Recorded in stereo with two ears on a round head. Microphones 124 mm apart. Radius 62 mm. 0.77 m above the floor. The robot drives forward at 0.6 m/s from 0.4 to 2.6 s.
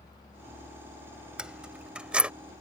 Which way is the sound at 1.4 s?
5° right (ahead or behind).